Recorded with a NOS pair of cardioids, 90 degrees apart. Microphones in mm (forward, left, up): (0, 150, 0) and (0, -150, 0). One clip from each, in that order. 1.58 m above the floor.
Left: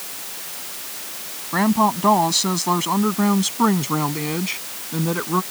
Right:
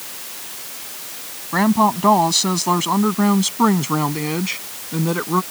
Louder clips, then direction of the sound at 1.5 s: Right 2 dB; 20° right.